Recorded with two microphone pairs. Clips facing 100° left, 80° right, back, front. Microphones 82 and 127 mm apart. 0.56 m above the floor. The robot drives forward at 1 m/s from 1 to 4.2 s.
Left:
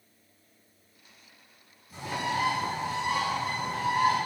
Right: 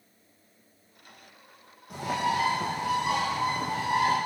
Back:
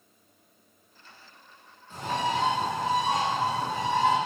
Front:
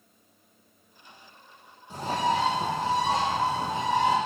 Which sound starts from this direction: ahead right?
A bird, at 1.9 s.